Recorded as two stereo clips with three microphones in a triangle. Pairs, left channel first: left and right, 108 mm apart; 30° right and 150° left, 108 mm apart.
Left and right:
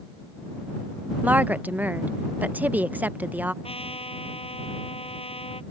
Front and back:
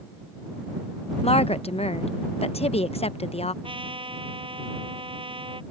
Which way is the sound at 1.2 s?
15° right.